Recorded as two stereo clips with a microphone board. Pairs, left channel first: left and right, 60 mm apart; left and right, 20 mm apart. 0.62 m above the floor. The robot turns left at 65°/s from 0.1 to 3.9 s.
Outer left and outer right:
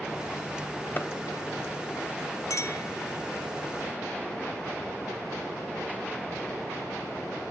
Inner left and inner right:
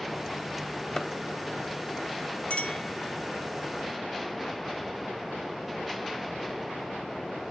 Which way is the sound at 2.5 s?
75° left (ahead or behind).